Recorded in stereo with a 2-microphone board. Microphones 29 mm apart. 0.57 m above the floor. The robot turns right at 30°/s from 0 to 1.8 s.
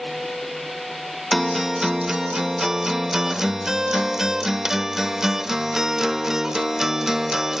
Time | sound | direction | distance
1.3 | a guitar | centre (ahead or behind) | 0.7 m